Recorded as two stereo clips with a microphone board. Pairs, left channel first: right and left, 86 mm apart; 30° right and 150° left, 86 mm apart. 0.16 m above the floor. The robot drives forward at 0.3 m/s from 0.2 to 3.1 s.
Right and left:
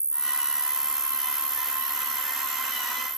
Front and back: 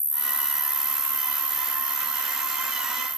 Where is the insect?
170° left; by 3.2 s 175° left.